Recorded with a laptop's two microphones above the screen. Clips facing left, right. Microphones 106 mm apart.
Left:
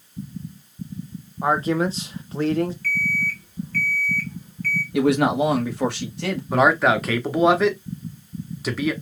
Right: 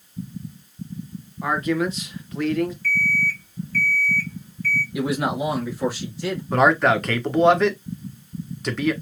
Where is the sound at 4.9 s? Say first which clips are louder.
Left 6 dB; 75° left (ahead or behind), 1.6 m.